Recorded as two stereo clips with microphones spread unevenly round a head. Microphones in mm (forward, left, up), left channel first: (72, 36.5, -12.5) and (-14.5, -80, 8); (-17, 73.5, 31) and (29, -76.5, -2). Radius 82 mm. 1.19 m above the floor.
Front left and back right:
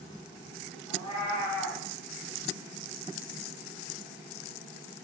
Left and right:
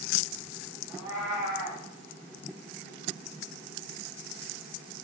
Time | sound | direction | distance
0.9 | a cat meowing | straight ahead | 1.9 m